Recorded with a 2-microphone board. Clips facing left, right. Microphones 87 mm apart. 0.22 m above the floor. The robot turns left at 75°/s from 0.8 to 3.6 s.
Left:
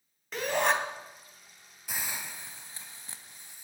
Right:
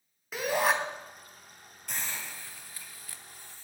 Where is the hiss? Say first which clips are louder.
Left 1 dB; 5° left (ahead or behind), 0.8 m; by 3.6 s 15° left (ahead or behind), 0.8 m.